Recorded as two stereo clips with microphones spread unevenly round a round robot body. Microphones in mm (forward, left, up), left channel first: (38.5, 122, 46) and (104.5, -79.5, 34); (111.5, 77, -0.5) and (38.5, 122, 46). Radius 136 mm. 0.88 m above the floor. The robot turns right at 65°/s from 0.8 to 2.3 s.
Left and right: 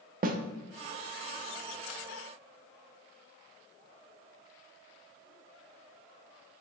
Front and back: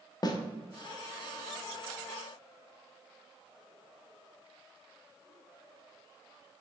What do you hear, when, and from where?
0.2 s a snare drum: 25° right, 0.6 m